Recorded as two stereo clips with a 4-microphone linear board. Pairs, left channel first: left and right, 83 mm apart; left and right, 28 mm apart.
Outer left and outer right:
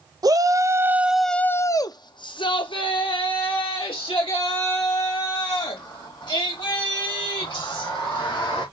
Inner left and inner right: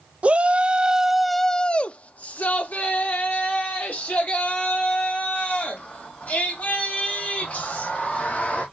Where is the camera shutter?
I don't hear a camera shutter.